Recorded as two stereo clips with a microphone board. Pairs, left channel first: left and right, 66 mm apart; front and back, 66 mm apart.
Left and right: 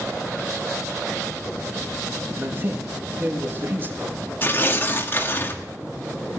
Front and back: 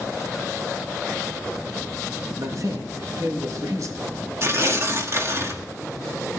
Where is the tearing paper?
140° left, 1.9 m.